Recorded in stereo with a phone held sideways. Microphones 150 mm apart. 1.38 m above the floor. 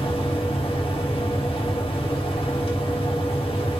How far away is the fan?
About 1.1 m.